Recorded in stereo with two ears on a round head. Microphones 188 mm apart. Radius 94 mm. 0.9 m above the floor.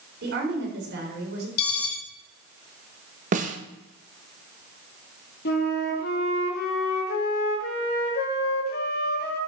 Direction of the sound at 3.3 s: 35° right (ahead or behind).